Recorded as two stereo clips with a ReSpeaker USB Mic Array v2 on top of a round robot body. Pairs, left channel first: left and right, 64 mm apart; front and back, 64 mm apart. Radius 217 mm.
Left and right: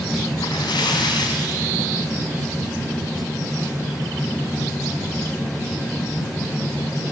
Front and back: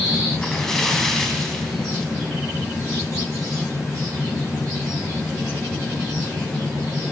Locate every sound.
0.4 s a splash: 85° left, 2 m